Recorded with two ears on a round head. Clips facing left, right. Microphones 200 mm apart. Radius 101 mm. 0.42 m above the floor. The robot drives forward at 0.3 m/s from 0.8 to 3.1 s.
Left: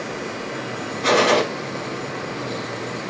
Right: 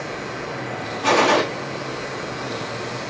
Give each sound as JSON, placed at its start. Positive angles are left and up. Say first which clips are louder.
{"t": 1.0, "sound": "a gunshot", "louder": "left 1 dB", "side_deg": 20, "distance_m": 0.7}